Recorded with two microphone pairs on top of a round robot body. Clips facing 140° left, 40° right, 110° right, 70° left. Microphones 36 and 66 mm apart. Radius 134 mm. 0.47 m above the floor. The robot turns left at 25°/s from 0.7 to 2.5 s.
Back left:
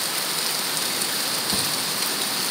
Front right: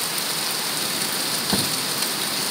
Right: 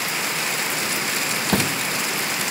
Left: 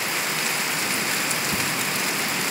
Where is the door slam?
105° right; by 1.8 s 110° right.